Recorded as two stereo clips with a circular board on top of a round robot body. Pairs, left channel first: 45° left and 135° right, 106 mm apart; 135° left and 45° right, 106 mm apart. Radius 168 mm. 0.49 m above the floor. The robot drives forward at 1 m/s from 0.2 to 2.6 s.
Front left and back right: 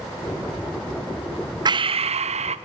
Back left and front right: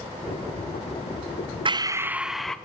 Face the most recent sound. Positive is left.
turn(degrees=-140)